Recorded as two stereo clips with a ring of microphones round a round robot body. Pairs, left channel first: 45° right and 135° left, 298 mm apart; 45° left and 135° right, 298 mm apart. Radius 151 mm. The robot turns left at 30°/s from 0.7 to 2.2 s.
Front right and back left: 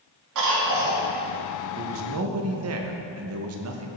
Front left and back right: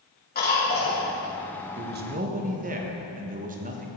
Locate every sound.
0.3 s a cough: 105° left, 2.5 m; by 1.1 s 95° left, 2.5 m
1.8 s a man speaking: straight behind, 1.0 m; by 3.9 s 165° left, 1.0 m